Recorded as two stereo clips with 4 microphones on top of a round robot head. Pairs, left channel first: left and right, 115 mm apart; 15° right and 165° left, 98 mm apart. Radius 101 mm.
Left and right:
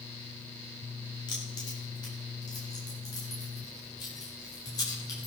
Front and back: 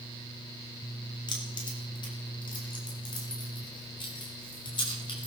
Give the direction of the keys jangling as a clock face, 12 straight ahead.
11 o'clock.